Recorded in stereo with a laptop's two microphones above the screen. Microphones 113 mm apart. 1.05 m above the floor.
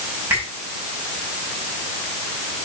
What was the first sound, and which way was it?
A finger snap, 20° right (ahead or behind).